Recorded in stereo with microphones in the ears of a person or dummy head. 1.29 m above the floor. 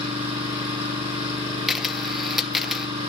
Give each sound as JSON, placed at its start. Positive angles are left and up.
{"t": 0.0, "sound": "an engine running", "side_deg": -30, "distance_m": 7.5}
{"t": 1.7, "sound": "a camera shutter", "side_deg": -5, "distance_m": 0.6}